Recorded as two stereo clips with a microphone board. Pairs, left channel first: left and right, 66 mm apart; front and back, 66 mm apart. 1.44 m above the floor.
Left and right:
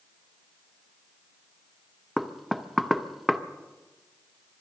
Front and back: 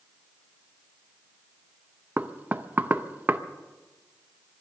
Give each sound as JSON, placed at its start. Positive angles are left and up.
{"t": 2.2, "sound": "knocking", "azimuth_deg": 180, "distance_m": 0.7}